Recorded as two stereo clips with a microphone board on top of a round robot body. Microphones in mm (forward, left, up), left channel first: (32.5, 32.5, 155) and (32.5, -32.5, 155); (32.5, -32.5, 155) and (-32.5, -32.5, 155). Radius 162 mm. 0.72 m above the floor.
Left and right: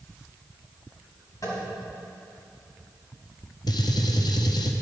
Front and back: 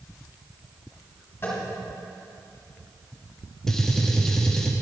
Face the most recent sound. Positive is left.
turn(degrees=80)